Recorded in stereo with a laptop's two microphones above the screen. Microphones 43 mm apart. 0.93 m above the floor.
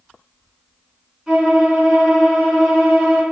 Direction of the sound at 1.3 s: 10° right (ahead or behind).